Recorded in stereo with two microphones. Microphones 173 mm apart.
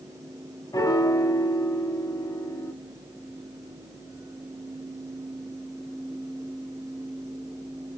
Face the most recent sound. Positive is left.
turn(degrees=20)  # may be behind; listen again after turning